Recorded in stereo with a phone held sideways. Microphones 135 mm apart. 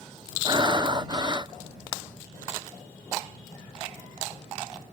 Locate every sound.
0.5 s breathing: 30° right (ahead or behind)